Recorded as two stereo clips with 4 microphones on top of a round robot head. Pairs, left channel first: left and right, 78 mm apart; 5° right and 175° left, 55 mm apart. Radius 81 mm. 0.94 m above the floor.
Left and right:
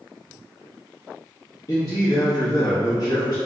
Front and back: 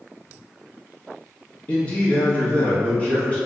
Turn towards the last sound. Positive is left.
turn(degrees=60)